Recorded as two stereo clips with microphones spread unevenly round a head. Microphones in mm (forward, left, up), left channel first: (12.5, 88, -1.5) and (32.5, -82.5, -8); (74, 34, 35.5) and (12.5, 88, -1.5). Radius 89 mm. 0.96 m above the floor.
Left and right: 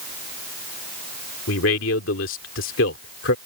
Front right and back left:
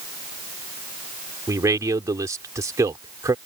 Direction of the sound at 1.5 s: 95° left.